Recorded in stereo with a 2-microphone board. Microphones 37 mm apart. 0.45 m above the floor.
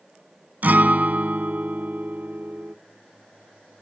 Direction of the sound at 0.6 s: 55° right (ahead or behind).